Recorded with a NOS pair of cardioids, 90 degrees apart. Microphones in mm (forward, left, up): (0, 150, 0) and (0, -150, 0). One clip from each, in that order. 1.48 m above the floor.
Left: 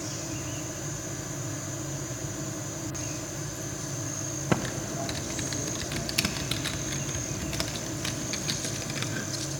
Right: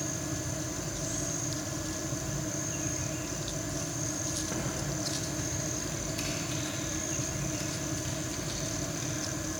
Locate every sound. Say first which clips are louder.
0.0 s a fan: even; 15° right, 1.6 m
4.5 s typing on a keyboard: left 4 dB; 65° left, 0.6 m